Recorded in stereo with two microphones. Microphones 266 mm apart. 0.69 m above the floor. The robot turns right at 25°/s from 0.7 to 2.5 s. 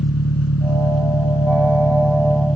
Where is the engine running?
110° left; by 2.6 s 155° left.